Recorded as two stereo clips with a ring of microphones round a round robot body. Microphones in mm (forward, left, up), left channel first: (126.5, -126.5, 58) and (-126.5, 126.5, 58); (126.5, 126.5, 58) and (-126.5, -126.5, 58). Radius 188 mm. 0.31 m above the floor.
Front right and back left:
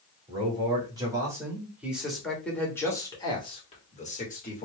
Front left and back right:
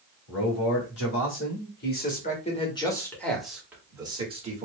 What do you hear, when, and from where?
0.3 s a man speaking: 65° left, 2 m; by 4.7 s 85° right, 1.7 m